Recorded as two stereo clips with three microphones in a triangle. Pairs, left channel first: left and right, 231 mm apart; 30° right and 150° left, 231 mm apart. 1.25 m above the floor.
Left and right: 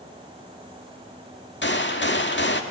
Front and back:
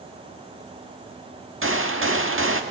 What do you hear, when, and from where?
1.6 s a gunshot: 125° left, 1.6 m